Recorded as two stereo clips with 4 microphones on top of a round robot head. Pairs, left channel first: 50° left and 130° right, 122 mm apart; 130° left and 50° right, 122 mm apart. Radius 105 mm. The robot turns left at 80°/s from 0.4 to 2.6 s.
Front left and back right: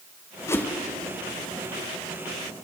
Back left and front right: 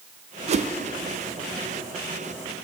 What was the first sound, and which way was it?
A whoosh, 15° right.